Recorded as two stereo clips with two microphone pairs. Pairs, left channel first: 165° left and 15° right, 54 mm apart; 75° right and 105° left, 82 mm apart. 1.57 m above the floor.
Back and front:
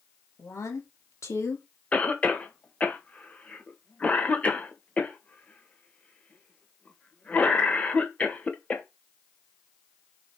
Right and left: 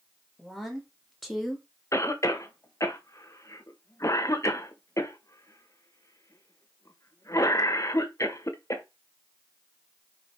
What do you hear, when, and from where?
0.4 s a woman speaking: 165° right, 3 m
1.9 s a cough: 125° right, 1.7 m